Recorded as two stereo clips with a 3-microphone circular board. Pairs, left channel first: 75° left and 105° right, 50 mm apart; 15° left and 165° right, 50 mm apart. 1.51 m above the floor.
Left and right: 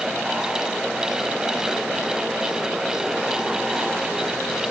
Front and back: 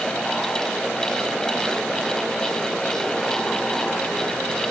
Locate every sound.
Only background noise.